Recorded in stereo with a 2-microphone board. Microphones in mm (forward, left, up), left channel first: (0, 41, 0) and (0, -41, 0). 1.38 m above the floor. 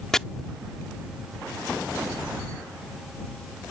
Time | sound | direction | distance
0.1 | chopping | 5° left (ahead or behind) | ?